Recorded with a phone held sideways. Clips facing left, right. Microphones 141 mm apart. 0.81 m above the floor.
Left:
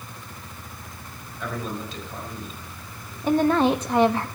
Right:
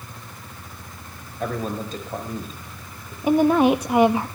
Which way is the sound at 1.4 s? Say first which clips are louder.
Right 4 dB; 45° right (ahead or behind).